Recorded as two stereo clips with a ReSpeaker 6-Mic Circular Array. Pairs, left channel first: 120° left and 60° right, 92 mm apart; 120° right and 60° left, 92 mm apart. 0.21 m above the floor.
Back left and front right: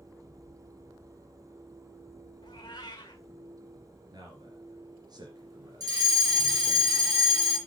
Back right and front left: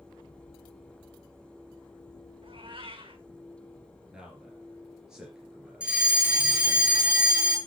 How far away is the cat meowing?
About 2.5 m.